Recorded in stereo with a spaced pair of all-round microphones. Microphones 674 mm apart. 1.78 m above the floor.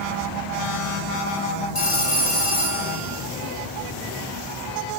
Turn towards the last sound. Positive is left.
turn(degrees=45)  # may be behind; listen again after turning